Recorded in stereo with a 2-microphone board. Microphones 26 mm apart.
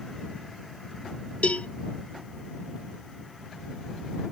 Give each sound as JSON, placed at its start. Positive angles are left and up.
{"t": 1.4, "sound": "a cowbell", "side_deg": 70}